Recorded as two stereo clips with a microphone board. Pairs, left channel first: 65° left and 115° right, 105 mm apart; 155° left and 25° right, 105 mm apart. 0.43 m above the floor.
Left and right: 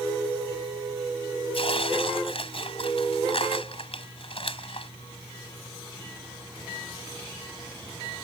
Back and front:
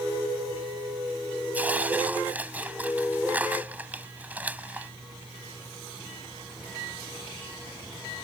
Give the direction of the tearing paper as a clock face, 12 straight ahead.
10 o'clock.